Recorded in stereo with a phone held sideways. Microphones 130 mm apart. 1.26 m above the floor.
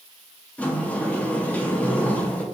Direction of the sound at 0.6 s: 10° left (ahead or behind).